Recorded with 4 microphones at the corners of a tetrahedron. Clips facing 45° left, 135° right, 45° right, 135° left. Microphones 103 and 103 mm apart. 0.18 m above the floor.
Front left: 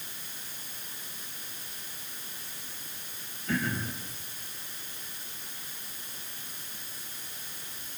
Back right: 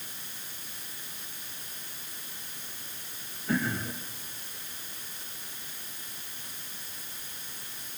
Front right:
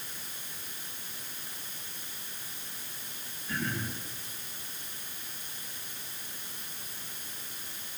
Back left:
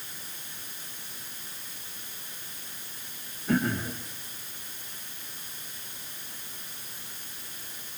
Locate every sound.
3.5 s throat clearing: 145° left, 7.5 m